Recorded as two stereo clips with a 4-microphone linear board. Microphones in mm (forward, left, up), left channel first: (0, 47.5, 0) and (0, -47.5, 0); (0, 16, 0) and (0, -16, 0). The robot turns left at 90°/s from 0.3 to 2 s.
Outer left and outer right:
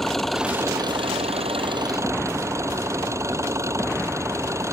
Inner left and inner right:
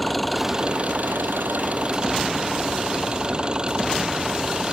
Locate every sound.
0.0 s an engine running: straight ahead; by 4.8 s 150° right